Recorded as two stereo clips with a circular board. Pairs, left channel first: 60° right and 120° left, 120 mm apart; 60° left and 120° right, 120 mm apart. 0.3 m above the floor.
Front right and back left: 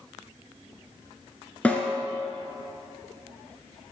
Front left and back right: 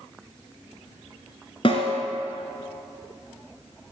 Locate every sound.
1.6 s a snare drum: 20° left, 1.5 m